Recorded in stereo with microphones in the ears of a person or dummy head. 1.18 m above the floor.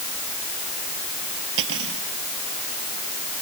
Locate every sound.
1.6 s cutlery clinking: 75° right (ahead or behind)